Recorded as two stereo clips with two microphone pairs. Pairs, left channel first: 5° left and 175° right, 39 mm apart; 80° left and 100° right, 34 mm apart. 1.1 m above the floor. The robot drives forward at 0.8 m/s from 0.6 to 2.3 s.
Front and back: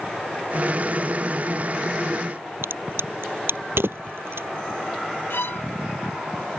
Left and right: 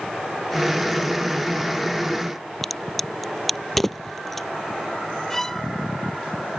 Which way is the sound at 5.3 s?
5° left.